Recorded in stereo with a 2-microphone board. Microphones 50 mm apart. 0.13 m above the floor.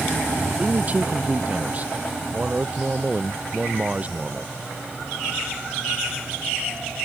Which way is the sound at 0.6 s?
30° right (ahead or behind).